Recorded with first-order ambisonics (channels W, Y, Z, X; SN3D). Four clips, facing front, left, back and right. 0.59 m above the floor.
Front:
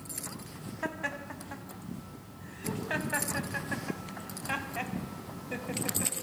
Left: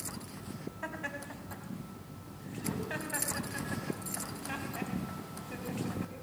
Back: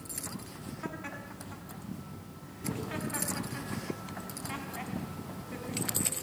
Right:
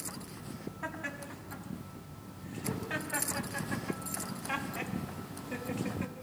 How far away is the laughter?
About 5 m.